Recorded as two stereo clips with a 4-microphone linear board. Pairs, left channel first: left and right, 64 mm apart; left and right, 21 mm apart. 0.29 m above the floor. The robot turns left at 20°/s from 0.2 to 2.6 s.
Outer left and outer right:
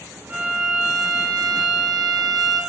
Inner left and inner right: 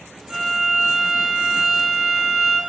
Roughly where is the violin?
Behind right.